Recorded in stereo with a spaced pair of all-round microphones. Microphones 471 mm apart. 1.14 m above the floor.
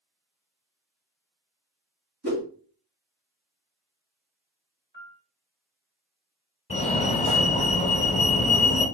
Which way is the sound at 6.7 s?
15° left (ahead or behind).